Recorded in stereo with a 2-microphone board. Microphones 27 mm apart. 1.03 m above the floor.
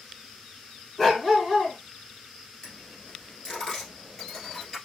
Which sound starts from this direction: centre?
A dog barking, at 1.0 s.